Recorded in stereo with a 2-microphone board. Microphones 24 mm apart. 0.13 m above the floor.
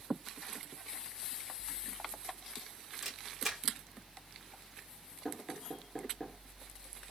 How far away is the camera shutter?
About 2.5 m.